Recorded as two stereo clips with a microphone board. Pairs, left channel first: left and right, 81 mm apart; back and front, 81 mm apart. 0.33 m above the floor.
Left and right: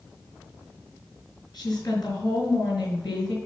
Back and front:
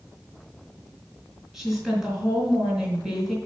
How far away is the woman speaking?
About 3.5 m.